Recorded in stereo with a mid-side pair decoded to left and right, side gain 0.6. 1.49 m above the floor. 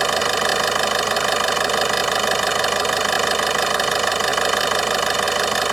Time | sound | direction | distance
0.0 | an engine running | 15° right | ?